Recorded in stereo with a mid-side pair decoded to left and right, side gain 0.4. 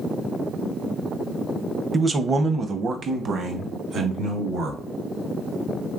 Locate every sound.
1.9 s a man speaking: 30° right, 0.7 m; by 4.8 s 70° right, 1.9 m